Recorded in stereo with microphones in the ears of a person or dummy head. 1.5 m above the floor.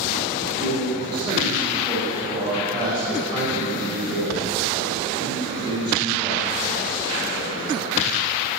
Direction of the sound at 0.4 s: 25° right (ahead or behind).